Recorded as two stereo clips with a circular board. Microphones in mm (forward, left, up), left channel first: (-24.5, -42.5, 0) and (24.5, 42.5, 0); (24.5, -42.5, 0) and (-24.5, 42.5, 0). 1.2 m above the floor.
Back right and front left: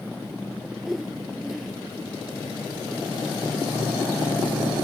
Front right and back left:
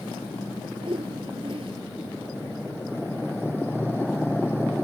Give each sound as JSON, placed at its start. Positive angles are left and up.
{"t": 0.8, "sound": "a whoosh", "azimuth_deg": 150}